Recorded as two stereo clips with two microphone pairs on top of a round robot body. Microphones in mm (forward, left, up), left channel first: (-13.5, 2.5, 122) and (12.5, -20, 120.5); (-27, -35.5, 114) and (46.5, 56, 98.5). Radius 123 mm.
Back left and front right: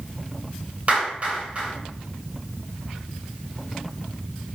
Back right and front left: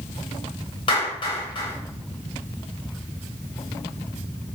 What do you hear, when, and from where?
0.9 s a clap: 85° right, 9 m